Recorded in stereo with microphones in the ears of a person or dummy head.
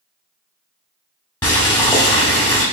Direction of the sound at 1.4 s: 15° left (ahead or behind).